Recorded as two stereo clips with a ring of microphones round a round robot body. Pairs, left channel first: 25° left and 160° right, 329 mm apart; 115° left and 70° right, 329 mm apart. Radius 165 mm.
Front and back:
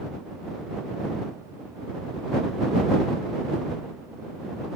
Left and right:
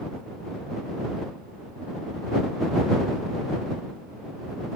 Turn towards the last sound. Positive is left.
No sound to turn to.